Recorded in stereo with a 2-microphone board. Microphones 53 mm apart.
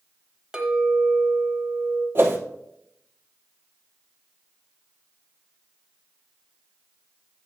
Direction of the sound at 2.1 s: 45° right (ahead or behind).